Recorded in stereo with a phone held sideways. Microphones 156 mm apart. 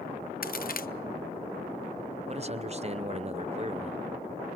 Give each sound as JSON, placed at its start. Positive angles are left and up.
{"t": 0.4, "sound": "a crack", "side_deg": 65, "distance_m": 0.6}
{"t": 2.3, "sound": "a man speaking", "side_deg": -40, "distance_m": 0.7}